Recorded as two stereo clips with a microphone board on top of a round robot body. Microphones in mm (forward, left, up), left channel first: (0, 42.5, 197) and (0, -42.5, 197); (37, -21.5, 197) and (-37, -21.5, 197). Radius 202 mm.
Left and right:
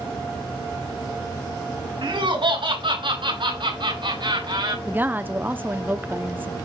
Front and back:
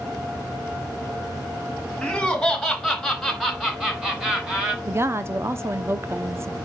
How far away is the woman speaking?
About 0.9 m.